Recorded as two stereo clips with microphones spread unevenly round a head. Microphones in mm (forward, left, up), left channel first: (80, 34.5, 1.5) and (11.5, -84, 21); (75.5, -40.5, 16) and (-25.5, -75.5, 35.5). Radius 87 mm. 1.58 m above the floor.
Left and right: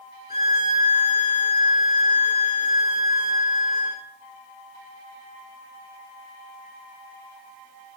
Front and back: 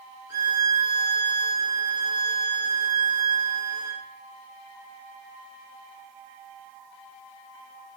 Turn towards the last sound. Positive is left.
turn(degrees=135)